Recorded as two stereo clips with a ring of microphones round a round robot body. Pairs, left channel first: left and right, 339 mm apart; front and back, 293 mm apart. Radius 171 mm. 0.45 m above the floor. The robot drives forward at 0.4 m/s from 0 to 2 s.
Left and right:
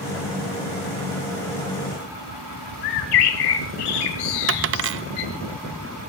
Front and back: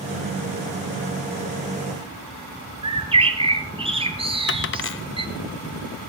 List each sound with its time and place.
2.8 s a bird: 110° left, 2.5 m
4.5 s a dropped coin: 45° right, 0.5 m